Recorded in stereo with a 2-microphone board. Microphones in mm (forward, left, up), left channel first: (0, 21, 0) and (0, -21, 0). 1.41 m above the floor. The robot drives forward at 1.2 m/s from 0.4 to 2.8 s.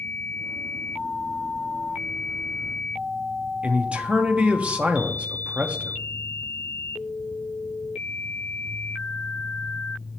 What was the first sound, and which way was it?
A man speaking, 25° right (ahead or behind).